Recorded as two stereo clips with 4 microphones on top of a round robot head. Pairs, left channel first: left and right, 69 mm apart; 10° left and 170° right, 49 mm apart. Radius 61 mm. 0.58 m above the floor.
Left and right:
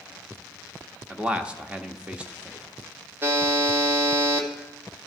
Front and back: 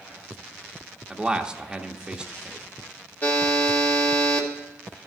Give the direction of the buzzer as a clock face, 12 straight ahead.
1 o'clock.